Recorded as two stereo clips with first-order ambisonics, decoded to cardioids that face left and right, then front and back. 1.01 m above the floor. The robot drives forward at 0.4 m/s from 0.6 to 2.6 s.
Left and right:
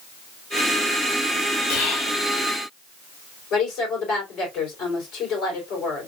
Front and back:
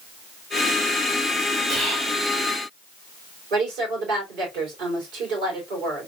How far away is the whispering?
About 1.6 m.